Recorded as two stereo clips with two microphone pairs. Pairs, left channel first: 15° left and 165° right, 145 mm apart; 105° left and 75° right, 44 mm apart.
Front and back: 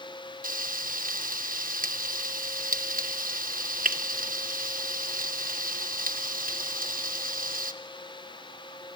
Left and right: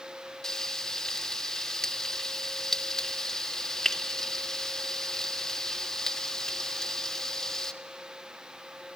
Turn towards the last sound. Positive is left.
turn(degrees=180)